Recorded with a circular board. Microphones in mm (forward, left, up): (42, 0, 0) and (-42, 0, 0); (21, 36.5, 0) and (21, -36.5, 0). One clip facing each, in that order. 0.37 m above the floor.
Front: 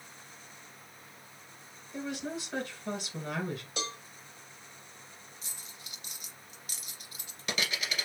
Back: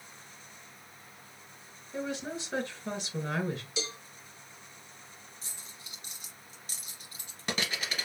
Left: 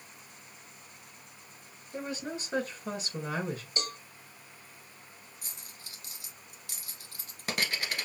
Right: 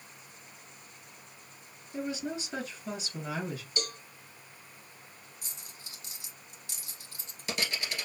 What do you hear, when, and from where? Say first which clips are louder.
1.9 s a woman speaking: back 1 dB, right 2 dB; 120° left, 2.5 m
3.8 s a cowbell: even, even; 35° left, 1.1 m
5.4 s a dropped coin: even, even; 125° left, 1.5 m